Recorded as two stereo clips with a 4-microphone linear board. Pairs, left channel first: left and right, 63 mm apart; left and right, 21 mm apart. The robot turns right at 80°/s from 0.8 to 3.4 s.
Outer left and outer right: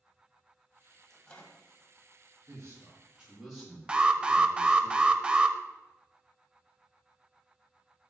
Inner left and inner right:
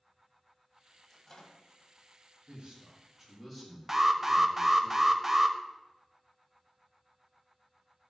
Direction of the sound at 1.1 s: 5° left (ahead or behind).